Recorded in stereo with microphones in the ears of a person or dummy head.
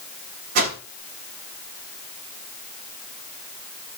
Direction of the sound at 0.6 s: 50° right (ahead or behind).